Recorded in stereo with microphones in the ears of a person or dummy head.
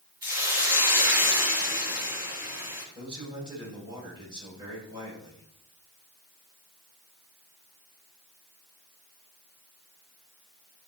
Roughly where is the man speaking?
Right.